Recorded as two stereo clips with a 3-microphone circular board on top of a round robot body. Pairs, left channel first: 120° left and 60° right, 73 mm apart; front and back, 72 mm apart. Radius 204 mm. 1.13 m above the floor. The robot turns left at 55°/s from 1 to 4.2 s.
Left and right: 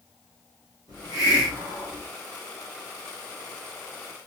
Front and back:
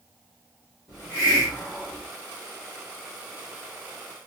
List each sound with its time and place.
0.9 s a hiss: 20° right, 0.8 m; by 2.1 s 80° right, 0.8 m